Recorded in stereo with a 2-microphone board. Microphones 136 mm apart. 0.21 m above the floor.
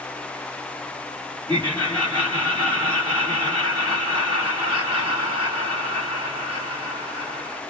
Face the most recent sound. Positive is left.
turn(degrees=-40)  # may be behind; listen again after turning